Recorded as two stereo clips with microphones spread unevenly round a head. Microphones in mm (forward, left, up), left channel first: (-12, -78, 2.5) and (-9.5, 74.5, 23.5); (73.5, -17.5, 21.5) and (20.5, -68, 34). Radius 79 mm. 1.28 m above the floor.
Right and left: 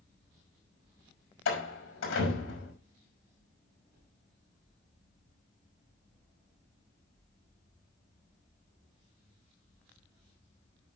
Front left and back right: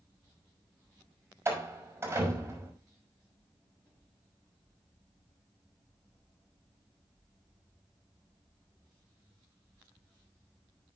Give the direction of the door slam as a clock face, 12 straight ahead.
3 o'clock.